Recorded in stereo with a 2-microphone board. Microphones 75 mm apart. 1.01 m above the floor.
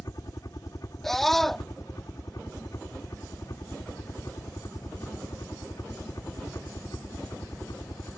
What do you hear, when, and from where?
0.0 s a helicopter: 50° left (ahead or behind)
1.0 s a scream: 5° left (ahead or behind)